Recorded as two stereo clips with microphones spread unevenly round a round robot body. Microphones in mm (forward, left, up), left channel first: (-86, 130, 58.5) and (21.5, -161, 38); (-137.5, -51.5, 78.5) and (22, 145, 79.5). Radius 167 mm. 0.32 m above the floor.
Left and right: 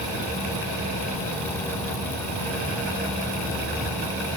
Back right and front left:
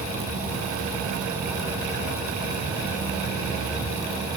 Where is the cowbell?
No cowbell in this recording.